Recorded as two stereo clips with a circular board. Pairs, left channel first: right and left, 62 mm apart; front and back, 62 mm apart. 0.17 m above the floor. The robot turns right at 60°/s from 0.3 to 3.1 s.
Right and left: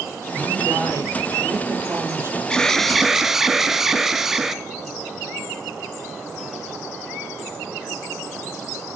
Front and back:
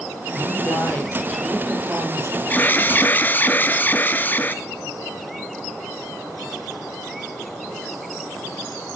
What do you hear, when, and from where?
0.3 s a woman speaking: 25° left, 5 m; by 2.4 s 150° left, 5 m
2.5 s an alarm: 25° right, 1.0 m; by 4.6 s 10° left, 1.0 m